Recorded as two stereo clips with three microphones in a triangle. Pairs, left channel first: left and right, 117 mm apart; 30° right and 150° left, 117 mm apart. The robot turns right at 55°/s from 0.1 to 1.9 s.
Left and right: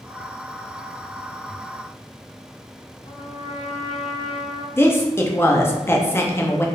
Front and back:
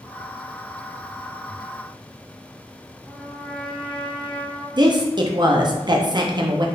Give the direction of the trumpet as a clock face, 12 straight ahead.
10 o'clock.